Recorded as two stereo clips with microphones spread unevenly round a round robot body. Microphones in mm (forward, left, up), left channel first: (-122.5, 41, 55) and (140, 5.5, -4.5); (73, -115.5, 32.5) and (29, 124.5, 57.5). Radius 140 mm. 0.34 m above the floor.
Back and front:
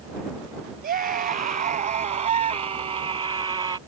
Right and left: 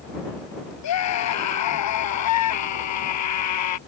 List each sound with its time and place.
0.8 s a scream: 70° right; by 3.8 s 85° right